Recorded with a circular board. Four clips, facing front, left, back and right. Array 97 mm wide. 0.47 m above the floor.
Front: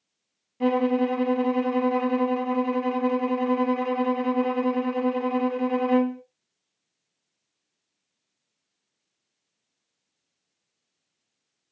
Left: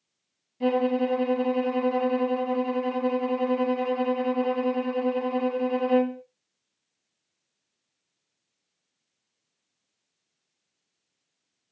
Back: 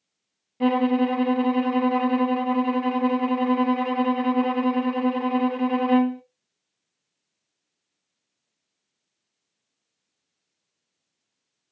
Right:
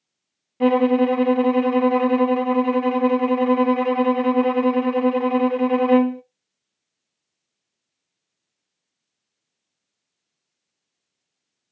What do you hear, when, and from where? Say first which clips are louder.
0.6 s a violin: right 7 dB, back 2 dB; 105° right, 0.7 m